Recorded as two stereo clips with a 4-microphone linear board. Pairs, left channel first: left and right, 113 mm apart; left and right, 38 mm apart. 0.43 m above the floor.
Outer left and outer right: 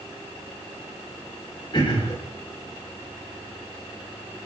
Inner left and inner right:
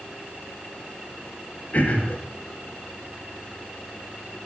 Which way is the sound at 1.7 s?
45° left (ahead or behind).